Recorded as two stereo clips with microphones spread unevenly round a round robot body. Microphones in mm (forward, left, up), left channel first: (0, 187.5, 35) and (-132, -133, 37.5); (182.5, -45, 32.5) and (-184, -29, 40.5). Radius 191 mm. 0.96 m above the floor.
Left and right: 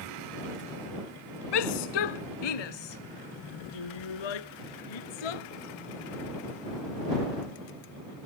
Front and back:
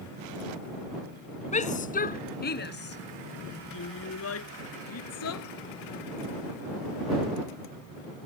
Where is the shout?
70° left; by 5.4 s 50° left.